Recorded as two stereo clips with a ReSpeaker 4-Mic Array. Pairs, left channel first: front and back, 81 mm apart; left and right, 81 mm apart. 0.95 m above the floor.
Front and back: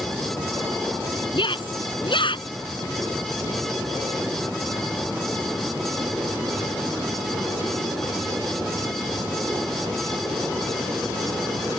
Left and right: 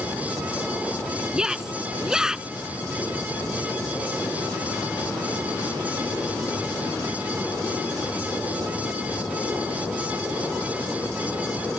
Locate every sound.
1.3 s a shout: 10° right